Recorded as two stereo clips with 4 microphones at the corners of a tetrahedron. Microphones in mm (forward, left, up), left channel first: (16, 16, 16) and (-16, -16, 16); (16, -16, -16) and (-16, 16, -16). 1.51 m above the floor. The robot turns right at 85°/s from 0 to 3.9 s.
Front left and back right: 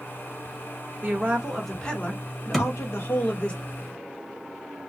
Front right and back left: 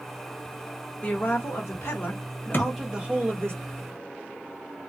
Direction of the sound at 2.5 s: 40° right.